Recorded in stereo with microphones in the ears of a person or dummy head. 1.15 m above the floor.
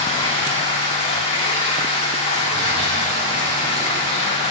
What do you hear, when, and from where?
0.0 s running water: 30° left (ahead or behind), 2.5 m